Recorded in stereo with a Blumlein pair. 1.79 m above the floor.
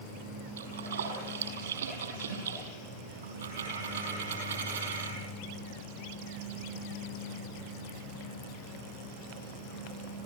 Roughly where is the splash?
Ahead right.